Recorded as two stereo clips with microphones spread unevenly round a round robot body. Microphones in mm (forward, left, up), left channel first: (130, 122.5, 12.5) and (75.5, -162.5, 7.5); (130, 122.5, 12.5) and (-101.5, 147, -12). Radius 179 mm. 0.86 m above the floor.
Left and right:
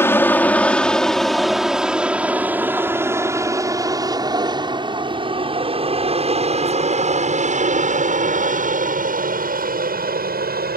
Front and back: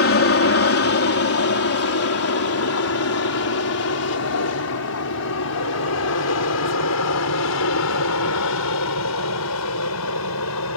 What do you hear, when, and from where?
0.0 s an aircraft: straight ahead; by 10.8 s 45° right